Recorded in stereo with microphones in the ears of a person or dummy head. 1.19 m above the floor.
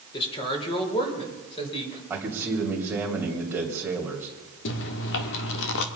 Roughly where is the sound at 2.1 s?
Centre.